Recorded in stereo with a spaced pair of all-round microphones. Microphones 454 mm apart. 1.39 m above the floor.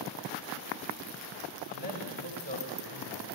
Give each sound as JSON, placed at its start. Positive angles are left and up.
{"t": 1.7, "sound": "a man speaking", "side_deg": -85, "distance_m": 5.5}